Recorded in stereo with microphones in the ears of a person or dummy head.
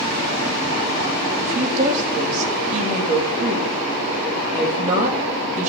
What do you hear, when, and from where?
1.4 s a woman speaking: 40° right (ahead or behind), 2.5 m